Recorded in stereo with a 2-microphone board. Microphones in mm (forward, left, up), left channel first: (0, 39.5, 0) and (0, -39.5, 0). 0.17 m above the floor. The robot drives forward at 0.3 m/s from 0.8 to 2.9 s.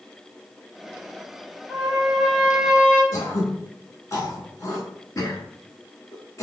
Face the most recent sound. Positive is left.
turn(degrees=45)  # may be behind; listen again after turning